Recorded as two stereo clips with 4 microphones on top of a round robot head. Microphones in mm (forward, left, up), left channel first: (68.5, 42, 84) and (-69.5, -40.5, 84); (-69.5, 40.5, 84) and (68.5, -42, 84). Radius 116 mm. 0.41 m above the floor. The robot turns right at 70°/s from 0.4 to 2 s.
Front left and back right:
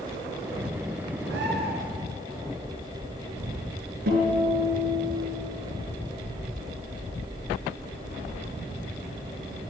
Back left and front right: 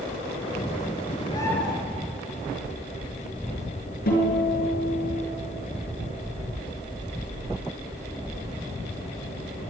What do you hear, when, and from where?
1.2 s a bird: 150° right, 2.5 m; by 1.7 s 120° right, 2.5 m
4.1 s a guitar: straight behind, 6.5 m